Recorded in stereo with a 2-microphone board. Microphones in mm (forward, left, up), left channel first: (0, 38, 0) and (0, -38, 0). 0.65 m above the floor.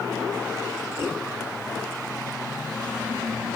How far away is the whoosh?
About 4.5 m.